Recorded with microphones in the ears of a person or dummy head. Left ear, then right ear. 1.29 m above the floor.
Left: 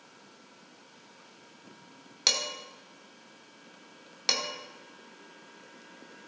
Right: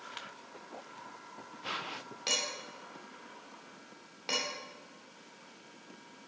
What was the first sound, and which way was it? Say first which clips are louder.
Dishes clattering: left 6 dB; 50° left (ahead or behind).